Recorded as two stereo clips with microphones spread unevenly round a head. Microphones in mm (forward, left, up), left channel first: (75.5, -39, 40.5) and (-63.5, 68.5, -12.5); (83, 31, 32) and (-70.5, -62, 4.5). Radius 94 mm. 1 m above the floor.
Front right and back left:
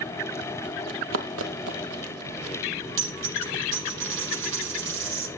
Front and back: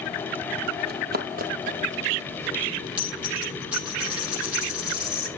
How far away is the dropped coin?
About 7.5 m.